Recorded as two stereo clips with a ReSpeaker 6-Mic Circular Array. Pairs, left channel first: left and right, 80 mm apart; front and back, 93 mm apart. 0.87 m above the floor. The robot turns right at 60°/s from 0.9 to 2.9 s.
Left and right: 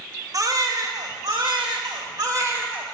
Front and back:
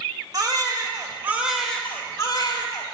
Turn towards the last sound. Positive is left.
turn(degrees=-15)